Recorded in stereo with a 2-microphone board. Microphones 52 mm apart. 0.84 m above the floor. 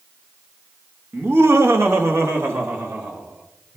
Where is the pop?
I don't hear a pop.